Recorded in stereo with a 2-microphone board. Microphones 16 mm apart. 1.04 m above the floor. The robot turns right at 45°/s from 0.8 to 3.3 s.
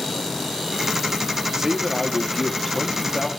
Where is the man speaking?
30° right, 1.9 m; by 3.3 s 50° left, 1.9 m.